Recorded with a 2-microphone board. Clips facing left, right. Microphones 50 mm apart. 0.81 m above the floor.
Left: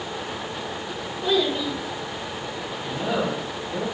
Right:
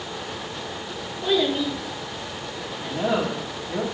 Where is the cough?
No cough in this recording.